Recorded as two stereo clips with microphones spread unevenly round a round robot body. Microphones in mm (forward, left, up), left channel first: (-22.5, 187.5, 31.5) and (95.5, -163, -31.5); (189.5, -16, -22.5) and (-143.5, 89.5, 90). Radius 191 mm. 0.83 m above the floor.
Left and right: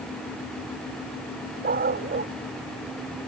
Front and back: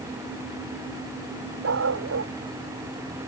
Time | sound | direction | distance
1.6 | a dog barking | 140° right | ?